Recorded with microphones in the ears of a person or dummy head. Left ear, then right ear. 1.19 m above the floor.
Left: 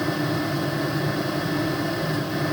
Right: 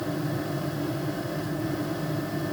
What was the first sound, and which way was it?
Only background noise.